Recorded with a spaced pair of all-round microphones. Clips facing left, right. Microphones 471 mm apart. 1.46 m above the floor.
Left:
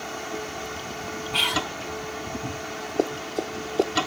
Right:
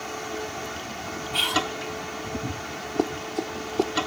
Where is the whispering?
80° left.